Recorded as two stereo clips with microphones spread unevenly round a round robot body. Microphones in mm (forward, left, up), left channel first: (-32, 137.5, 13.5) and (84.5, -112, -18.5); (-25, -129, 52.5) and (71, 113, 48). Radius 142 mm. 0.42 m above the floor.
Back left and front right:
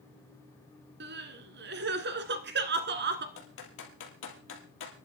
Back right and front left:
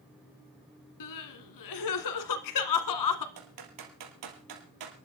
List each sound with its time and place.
1.0 s crying: 120° right, 1.5 m
3.4 s typing on a keyboard: 70° left, 3 m